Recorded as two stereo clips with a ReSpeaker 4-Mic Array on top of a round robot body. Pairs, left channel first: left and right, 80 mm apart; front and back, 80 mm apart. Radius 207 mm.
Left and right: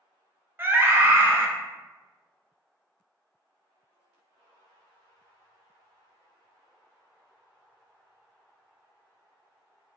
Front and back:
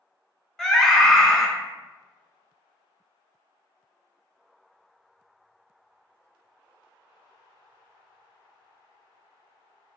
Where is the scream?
75° right, 0.8 m.